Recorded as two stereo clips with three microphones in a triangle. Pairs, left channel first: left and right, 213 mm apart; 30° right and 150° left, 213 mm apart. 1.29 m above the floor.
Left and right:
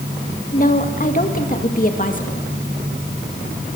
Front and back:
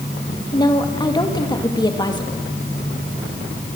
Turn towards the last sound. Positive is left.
turn(degrees=40)